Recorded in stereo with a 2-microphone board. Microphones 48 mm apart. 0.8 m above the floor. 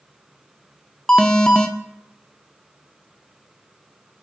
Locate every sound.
1.1 s an alarm: 15° left (ahead or behind), 0.5 m